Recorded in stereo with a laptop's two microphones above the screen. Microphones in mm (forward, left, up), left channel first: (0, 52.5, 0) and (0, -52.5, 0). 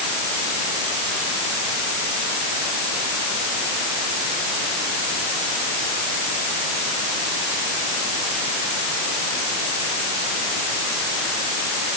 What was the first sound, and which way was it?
Only background noise.